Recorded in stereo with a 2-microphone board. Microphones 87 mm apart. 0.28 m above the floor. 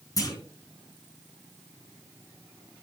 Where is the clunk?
45° left (ahead or behind), 4 m.